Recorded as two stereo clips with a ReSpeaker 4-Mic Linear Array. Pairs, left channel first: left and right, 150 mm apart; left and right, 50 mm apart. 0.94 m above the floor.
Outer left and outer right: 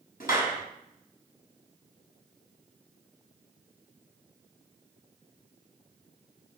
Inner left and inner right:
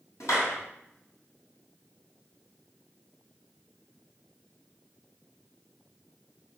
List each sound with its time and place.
0.2 s a clap: 80° left, 5.5 m